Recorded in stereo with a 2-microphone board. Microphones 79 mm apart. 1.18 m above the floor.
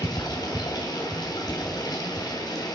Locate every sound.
0.0 s running water: 55° left (ahead or behind), 2 m